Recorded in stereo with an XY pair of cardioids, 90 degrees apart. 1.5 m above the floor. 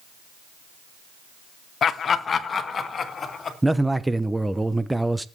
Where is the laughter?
60° left, 1.1 m; by 3.5 s 40° left, 3.5 m.